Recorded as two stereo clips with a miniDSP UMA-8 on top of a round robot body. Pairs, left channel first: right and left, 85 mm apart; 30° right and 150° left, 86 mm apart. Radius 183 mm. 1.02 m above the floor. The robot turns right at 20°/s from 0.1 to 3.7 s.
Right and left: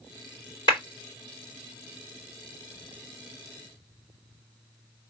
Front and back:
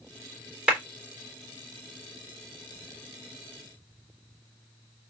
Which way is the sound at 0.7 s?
130° right.